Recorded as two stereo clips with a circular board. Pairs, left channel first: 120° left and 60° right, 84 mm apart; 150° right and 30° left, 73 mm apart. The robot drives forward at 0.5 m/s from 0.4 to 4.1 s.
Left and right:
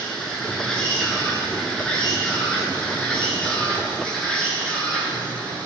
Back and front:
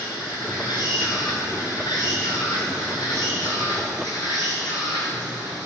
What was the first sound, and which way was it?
An insect, 160° right.